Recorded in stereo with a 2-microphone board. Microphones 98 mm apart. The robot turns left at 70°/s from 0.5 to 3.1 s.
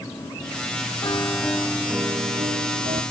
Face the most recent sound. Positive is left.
turn(degrees=-100)